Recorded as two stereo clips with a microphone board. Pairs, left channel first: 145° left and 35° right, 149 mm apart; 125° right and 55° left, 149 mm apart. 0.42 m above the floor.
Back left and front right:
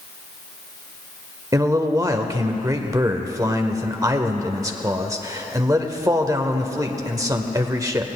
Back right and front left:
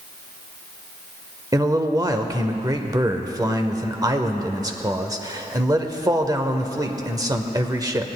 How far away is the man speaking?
About 0.9 m.